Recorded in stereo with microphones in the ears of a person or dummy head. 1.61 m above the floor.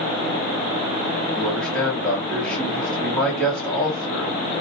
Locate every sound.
1.3 s a man speaking: 10° left (ahead or behind), 1.1 m